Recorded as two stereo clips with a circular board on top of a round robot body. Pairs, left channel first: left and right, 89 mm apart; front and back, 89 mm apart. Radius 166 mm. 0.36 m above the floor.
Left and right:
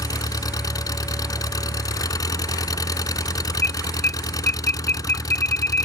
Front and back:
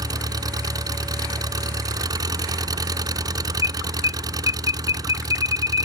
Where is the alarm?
25° left.